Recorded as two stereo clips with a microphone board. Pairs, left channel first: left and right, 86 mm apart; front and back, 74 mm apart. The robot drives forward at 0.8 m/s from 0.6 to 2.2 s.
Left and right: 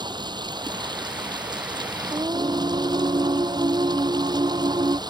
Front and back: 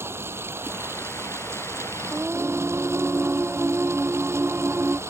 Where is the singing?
105° right; by 5.0 s 115° right.